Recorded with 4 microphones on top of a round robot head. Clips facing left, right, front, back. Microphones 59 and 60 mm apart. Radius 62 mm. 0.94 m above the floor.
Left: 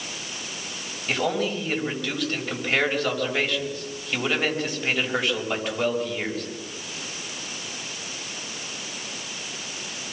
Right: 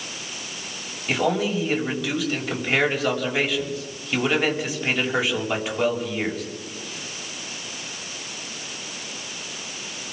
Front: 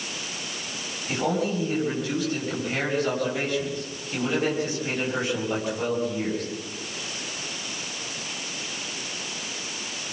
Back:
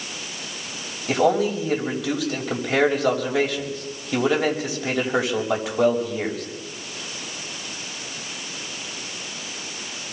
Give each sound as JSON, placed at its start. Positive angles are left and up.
{"t": 1.1, "sound": "a man speaking", "azimuth_deg": 180, "distance_m": 6.5}